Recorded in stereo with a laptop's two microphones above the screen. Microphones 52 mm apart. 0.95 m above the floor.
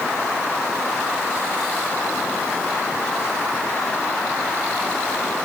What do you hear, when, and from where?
Only background noise.